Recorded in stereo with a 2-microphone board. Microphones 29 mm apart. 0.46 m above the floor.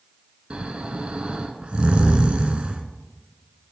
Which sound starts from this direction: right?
Snoring, at 0.5 s.